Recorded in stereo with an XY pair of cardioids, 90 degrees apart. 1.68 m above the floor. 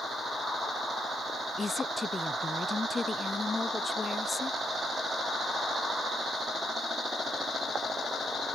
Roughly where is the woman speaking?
Ahead left.